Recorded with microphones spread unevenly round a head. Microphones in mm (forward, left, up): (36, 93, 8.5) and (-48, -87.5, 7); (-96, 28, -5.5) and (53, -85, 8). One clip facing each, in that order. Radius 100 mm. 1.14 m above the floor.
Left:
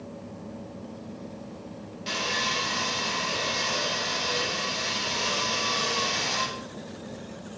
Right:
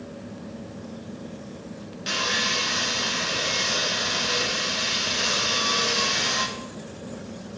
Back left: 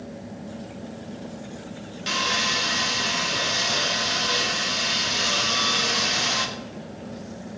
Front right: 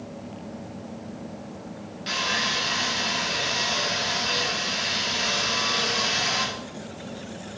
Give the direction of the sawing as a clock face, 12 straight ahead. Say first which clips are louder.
Right 2 dB, back left 2 dB; 6 o'clock.